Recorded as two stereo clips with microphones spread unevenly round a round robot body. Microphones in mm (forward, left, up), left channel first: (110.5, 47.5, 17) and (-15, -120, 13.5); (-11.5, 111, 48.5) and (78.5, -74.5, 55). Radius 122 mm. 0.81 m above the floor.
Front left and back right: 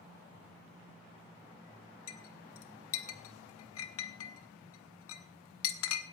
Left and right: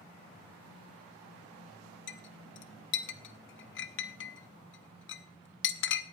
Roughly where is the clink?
Left.